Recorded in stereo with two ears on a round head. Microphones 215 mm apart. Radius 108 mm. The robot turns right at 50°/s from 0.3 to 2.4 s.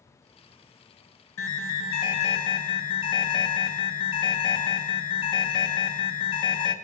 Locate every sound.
1.4 s an alarm: 105° left, 2.5 m; by 6.7 s 160° left, 2.5 m